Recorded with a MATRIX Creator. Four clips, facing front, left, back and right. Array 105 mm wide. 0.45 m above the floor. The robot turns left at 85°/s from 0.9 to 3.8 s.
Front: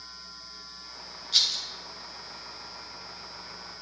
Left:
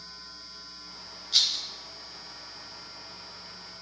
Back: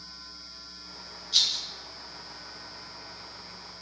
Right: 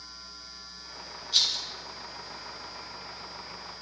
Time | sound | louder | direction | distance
1.3 | a rattle | even, even | 45° left | 0.5 m